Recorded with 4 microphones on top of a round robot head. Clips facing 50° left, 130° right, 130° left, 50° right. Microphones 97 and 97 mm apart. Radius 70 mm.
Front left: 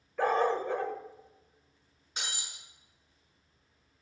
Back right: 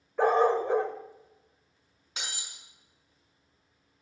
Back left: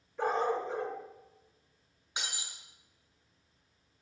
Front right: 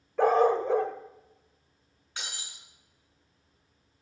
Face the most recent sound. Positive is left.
turn(degrees=-160)